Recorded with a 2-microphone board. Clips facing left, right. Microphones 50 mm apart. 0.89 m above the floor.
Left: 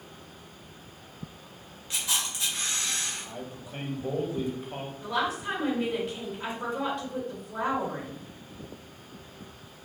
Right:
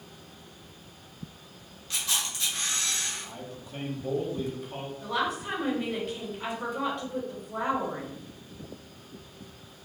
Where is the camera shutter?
20° left (ahead or behind), 1.1 m.